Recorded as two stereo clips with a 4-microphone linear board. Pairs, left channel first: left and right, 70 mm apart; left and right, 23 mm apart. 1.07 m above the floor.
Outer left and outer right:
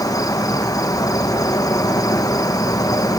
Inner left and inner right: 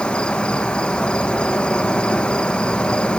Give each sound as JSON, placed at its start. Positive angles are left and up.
{"t": 0.0, "sound": "an insect", "side_deg": 55, "distance_m": 1.0}